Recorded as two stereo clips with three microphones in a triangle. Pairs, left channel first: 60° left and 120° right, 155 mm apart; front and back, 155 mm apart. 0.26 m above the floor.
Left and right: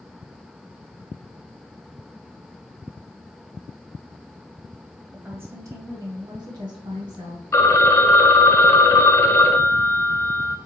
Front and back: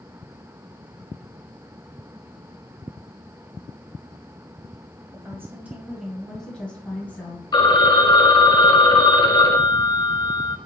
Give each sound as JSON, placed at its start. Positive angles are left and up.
{"t": 5.1, "sound": "a woman speaking", "azimuth_deg": -175, "distance_m": 0.9}
{"t": 7.5, "sound": "a phone ringing", "azimuth_deg": 5, "distance_m": 0.5}